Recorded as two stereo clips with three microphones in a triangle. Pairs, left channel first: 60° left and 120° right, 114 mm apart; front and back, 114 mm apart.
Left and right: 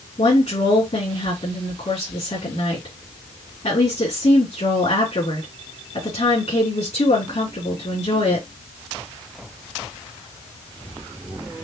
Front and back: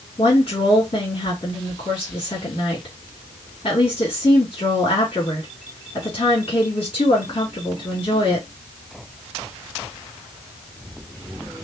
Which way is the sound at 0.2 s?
35° left.